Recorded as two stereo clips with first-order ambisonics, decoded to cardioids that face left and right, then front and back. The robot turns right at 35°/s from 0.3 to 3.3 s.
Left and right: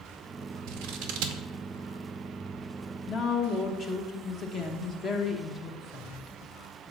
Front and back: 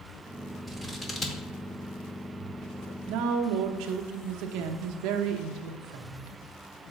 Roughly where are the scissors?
Right.